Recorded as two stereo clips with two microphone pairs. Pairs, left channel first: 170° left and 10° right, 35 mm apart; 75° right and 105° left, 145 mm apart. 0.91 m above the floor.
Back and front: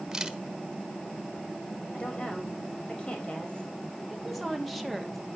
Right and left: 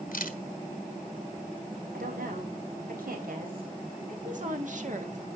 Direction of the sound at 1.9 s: 110° left.